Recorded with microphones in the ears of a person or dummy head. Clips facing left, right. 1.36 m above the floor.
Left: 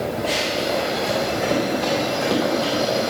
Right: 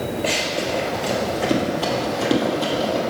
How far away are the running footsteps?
About 1.5 m.